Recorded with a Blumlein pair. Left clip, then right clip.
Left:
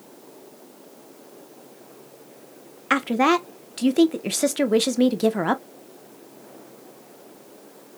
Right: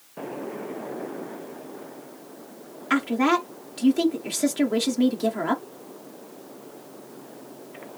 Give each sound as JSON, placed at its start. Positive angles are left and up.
{"t": 2.9, "sound": "a woman speaking", "azimuth_deg": 70, "distance_m": 1.2}